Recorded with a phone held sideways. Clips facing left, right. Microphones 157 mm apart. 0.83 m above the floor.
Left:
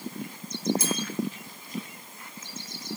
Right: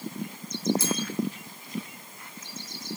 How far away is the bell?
About 0.5 m.